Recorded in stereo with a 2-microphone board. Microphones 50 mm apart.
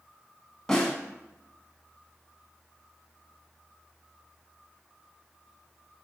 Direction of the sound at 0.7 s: 10° left (ahead or behind).